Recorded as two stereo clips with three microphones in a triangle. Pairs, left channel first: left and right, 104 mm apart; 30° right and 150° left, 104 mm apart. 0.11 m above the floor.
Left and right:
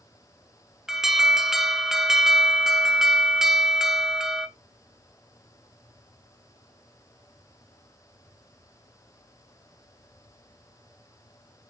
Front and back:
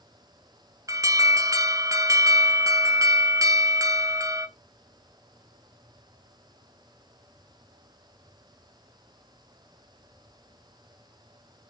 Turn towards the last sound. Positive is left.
turn(degrees=-175)